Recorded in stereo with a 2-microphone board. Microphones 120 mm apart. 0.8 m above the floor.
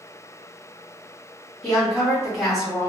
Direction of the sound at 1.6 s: 5° left (ahead or behind).